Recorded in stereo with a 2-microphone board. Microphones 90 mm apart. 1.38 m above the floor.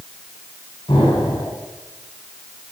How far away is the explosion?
About 4 m.